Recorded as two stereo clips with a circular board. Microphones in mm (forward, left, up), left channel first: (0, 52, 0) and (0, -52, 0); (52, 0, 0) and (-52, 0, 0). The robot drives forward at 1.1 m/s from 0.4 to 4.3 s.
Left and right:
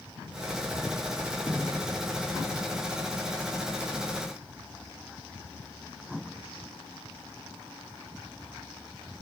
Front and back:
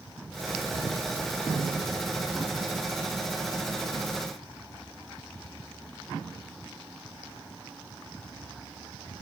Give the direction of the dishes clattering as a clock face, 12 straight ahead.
I don't hear dishes clattering.